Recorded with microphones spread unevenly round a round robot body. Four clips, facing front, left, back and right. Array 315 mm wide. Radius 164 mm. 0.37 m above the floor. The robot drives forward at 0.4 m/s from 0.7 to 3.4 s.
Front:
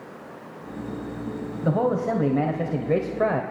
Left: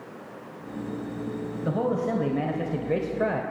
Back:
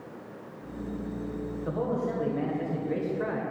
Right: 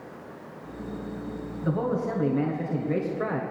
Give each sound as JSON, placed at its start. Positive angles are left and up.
{"t": 1.6, "sound": "a man speaking", "azimuth_deg": 10, "distance_m": 2.0}